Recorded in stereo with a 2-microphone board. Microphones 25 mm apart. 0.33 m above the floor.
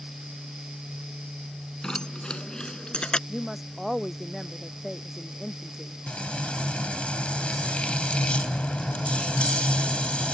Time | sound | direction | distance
1.8 | keys jangling | 30° left (ahead or behind) | ?
3.3 | a woman speaking | 5° right (ahead or behind) | ?
6.1 | frying | 55° left (ahead or behind) | ?